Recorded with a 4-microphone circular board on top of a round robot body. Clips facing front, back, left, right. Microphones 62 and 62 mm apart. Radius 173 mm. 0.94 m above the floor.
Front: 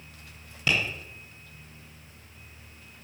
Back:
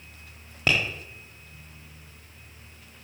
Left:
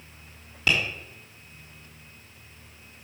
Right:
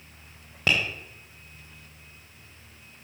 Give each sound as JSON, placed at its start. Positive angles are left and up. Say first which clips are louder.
{"t": 0.7, "sound": "tapping", "louder": "back 2 dB, even", "azimuth_deg": -140, "distance_m": 1.0}